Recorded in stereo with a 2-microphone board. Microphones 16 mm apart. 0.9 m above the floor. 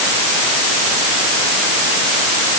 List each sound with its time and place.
Only background noise.